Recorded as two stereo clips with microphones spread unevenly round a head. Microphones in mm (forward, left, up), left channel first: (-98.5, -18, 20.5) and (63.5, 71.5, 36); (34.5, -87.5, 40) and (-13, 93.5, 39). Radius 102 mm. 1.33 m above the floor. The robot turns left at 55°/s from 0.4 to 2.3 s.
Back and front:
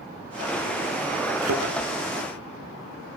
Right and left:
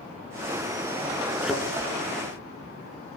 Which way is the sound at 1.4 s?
20° left.